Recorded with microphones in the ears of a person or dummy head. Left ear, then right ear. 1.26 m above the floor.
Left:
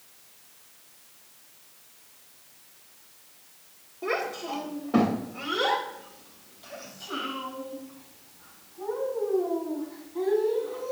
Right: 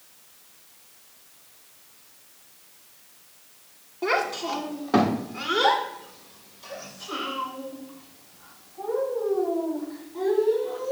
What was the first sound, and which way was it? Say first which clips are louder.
A child speaking: right 5 dB; 75° right (ahead or behind).